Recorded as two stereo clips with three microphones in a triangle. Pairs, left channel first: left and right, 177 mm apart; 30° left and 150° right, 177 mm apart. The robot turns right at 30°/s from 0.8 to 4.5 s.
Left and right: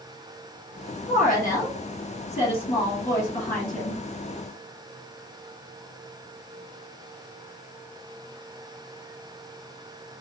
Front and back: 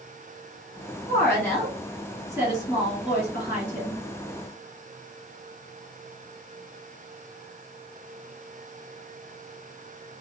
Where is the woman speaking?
95° left, 1.6 m; by 4.0 s straight behind, 1.6 m.